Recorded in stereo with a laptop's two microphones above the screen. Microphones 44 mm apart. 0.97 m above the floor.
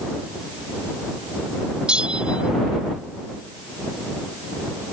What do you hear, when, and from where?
1.9 s a bell: 20° right (ahead or behind)